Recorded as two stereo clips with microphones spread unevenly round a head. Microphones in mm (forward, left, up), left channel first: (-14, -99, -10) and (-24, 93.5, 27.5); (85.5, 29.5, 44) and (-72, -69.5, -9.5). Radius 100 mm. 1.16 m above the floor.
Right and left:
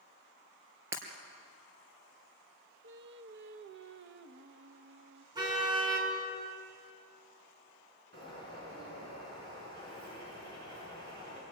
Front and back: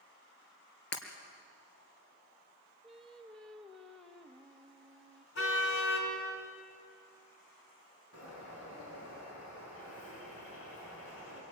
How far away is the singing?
About 1.1 m.